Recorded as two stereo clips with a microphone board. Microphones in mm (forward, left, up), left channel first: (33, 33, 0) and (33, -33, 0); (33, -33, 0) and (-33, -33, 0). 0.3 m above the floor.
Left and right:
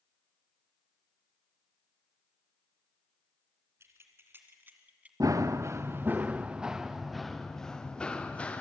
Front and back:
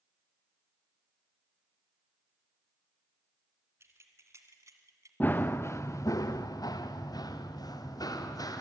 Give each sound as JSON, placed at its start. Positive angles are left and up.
{"t": 3.8, "sound": "keys jangling", "azimuth_deg": -135, "distance_m": 2.5}
{"t": 5.2, "sound": "running footsteps", "azimuth_deg": -60, "distance_m": 1.1}